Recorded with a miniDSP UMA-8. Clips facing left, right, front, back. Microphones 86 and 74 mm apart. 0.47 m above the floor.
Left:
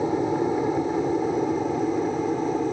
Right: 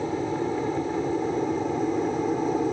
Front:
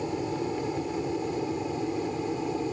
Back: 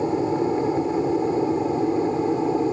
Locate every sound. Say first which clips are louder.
0.0 s an aircraft: left 4 dB, back 8 dB; 150° left; by 2.7 s 175° right